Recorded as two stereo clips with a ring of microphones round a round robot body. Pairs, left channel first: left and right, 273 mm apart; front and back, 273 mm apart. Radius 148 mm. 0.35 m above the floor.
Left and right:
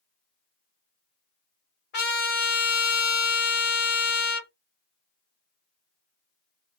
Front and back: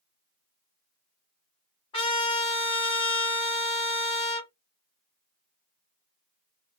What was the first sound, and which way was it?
A trumpet, 65° left.